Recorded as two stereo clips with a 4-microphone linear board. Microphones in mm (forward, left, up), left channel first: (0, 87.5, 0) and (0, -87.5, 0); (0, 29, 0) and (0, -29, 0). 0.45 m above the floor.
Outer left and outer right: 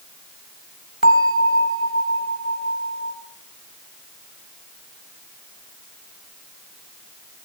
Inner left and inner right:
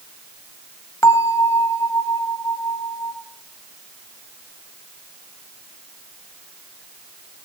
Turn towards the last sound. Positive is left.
turn(degrees=60)  # may be behind; listen again after turning